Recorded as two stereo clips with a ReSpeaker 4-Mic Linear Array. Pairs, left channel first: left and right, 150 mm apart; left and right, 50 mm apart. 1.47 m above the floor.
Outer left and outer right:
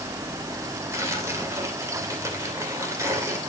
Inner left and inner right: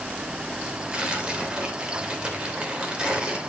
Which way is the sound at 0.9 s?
20° right (ahead or behind).